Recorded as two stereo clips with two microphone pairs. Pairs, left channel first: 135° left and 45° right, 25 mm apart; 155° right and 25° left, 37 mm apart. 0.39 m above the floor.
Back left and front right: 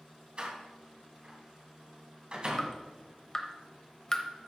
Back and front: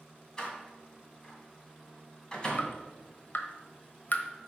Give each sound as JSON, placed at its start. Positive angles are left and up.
{"t": 0.4, "sound": "a door slam", "azimuth_deg": -90, "distance_m": 2.5}
{"t": 2.6, "sound": "dripping", "azimuth_deg": -160, "distance_m": 1.1}